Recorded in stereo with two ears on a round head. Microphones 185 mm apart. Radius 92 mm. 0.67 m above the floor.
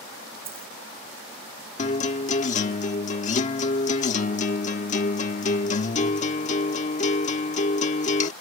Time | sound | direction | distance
0.5 | a dropped coin | 30° right (ahead or behind) | ?
1.8 | a guitar | 35° left (ahead or behind) | ?